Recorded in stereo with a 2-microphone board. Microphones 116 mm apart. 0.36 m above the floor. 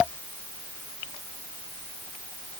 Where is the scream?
No scream in this recording.